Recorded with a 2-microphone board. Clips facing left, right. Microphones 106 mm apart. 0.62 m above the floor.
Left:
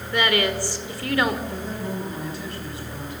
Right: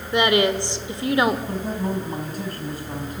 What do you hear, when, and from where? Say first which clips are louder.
0.1 s a woman speaking: right 4 dB; 20° right (ahead or behind), 2 m
1.5 s a man speaking: right 4 dB; 45° right (ahead or behind), 5 m